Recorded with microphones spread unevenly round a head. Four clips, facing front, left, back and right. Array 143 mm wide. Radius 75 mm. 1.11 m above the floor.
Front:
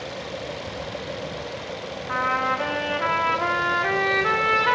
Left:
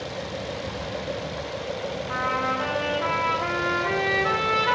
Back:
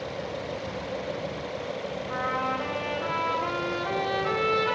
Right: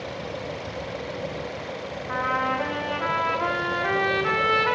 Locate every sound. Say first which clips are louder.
2.1 s a trumpet: right 2 dB, front 6 dB; 30° right, 0.8 m